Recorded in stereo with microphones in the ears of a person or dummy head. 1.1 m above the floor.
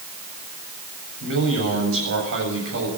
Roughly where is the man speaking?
Right.